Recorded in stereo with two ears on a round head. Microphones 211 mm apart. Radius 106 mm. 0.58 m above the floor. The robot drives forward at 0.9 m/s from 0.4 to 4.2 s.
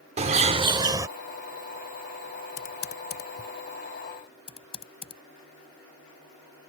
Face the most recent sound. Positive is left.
turn(degrees=25)  # may be behind; listen again after turning